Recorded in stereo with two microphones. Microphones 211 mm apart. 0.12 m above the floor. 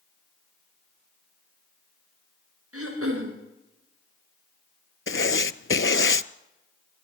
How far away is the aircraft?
No aircraft in this recording.